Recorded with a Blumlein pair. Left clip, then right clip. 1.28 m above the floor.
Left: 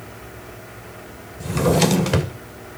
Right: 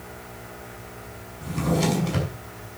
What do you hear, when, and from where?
1.4 s a drawer: 50° left, 2.5 m